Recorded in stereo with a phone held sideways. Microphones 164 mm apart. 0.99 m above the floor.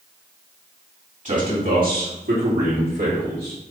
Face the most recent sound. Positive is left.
turn(degrees=-75)  # may be behind; listen again after turning